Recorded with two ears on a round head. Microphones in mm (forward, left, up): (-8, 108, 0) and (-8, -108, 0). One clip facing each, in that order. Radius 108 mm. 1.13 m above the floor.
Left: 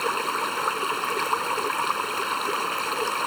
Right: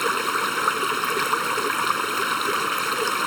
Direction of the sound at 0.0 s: 25° right (ahead or behind).